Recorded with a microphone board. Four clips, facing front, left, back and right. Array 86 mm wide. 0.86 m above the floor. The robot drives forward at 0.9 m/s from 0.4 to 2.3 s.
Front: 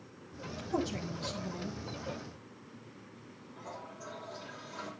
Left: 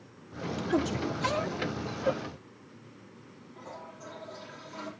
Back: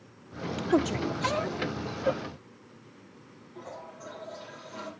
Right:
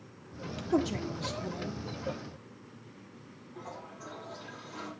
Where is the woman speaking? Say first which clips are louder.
Even, back 9 dB; 175° right, 1.2 m; by 1.8 s straight behind, 2.5 m.